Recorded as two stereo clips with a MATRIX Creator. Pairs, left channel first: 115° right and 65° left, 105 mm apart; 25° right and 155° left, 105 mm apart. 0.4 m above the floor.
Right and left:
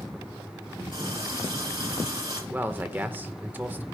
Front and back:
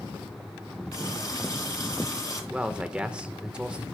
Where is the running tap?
30° left, 5 m.